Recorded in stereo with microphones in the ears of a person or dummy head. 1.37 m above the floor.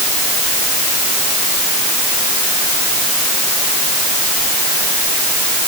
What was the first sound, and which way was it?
Only background noise.